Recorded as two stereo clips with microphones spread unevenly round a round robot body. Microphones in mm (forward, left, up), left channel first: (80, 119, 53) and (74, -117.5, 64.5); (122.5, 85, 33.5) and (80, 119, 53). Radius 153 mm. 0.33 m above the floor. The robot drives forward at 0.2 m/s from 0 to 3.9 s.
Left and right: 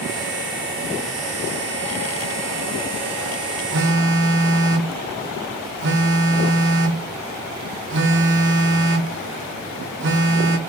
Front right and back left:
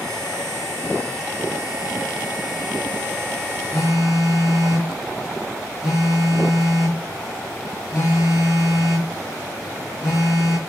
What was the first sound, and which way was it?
A phone buzzing, 110° right.